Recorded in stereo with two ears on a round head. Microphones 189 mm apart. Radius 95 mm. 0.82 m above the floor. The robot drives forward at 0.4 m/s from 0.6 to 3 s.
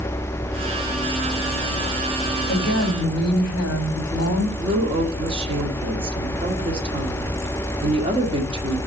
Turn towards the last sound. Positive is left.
turn(degrees=-25)  # may be behind; listen again after turning